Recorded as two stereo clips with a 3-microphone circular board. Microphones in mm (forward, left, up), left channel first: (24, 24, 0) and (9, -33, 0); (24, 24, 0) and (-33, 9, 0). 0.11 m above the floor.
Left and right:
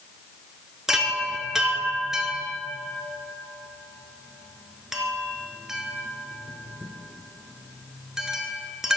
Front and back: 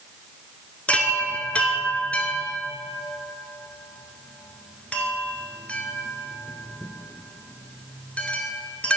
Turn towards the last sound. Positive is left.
turn(degrees=-30)